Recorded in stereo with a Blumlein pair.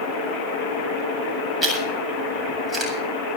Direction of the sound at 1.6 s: 10° right.